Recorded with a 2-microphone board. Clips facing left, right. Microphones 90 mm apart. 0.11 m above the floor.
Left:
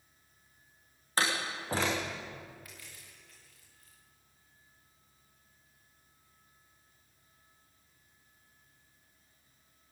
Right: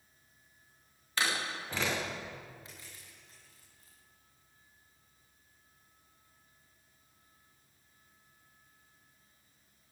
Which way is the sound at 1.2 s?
40° left (ahead or behind).